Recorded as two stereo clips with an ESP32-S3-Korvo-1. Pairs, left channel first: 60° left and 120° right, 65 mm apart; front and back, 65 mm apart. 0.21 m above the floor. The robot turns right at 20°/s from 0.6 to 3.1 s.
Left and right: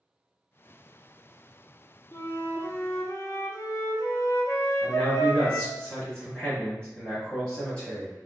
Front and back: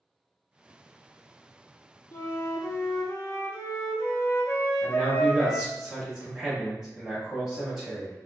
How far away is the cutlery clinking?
No cutlery clinking in this recording.